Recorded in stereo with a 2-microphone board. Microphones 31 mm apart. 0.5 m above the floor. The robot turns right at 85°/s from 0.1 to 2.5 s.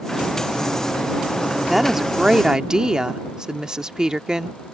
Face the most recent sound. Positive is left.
turn(degrees=-20)  # may be behind; listen again after turning